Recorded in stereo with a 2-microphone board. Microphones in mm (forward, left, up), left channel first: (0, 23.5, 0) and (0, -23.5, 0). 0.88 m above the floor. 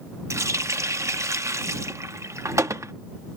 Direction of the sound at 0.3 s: 85° right.